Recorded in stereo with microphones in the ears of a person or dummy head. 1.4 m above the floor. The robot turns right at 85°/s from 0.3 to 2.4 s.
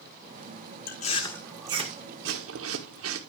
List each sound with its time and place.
0.9 s chewing: 45° left (ahead or behind), 1.5 m; by 3.2 s 75° right (ahead or behind), 1.5 m